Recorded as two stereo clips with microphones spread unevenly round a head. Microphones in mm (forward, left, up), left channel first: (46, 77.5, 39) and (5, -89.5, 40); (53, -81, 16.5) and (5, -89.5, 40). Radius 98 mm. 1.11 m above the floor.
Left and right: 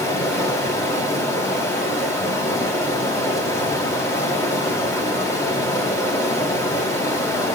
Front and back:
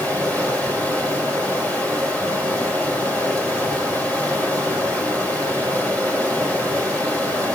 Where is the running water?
150° left, 3.5 m.